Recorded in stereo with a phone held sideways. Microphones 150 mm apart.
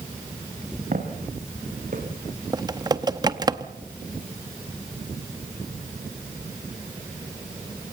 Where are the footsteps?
55° right (ahead or behind), 4 m; by 2.1 s 65° right (ahead or behind), 4 m.